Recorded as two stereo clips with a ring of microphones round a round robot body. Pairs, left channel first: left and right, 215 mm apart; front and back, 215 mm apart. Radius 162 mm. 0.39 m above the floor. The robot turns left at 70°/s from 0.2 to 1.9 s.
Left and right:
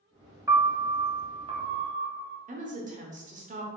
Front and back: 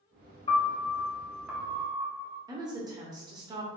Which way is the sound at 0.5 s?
30° right.